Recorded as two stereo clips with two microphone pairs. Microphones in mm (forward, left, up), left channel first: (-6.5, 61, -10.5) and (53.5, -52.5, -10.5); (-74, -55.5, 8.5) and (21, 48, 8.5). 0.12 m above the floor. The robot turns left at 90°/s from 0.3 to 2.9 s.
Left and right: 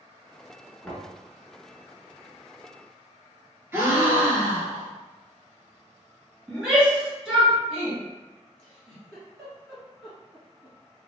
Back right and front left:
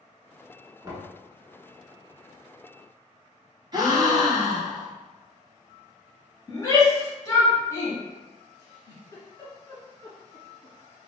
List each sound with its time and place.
0.8 s knocking: 55° left, 0.8 m; by 1.2 s 25° left, 0.8 m
3.7 s a gasp: straight ahead, 0.6 m
6.5 s a shout: 140° right, 1.2 m
8.6 s a giggle: 155° right, 1.5 m